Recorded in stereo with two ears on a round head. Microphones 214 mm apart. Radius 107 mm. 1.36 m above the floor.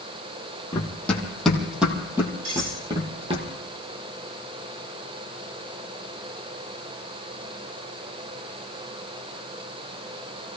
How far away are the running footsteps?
About 3 m.